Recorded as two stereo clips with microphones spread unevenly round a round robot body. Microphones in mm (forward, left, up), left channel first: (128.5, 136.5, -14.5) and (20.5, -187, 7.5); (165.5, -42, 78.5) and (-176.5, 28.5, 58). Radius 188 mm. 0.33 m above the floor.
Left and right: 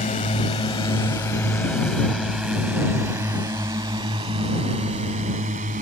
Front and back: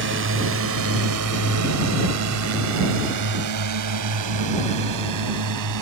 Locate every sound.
0.0 s a drone: 135° left; by 5.8 s 175° right